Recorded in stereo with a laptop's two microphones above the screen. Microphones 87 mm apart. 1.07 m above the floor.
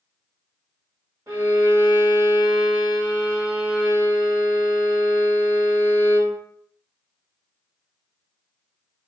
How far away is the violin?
About 1.6 m.